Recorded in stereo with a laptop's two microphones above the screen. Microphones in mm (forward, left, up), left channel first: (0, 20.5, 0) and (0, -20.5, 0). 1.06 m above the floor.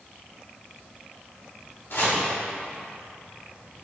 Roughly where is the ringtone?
I don't hear a ringtone.